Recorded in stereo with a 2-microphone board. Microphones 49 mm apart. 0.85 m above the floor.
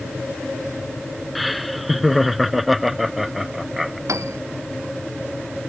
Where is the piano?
85° right.